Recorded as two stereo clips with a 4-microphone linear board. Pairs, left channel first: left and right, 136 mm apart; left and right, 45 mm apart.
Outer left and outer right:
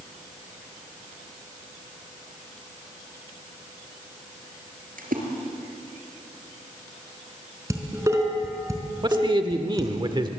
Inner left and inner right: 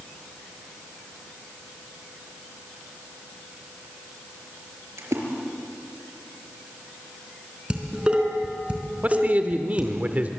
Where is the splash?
75° right (ahead or behind), 4.5 m.